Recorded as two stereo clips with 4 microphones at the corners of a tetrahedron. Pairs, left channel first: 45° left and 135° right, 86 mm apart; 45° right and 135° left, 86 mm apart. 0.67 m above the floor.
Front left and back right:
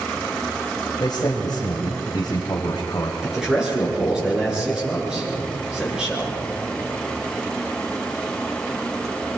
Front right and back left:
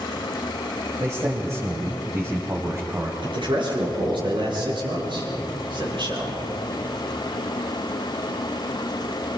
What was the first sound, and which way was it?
A man speaking, 80° left.